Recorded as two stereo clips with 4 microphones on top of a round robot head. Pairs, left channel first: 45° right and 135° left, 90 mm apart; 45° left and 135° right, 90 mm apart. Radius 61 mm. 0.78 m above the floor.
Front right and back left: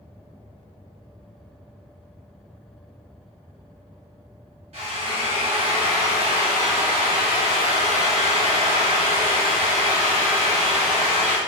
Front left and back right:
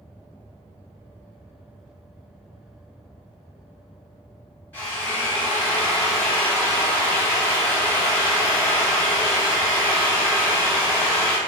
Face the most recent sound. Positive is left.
turn(degrees=120)